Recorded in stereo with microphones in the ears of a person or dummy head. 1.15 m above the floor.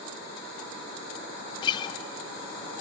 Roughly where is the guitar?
Left.